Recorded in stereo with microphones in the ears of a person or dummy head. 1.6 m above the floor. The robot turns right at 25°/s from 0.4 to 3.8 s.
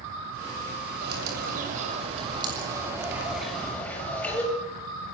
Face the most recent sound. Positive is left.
turn(degrees=10)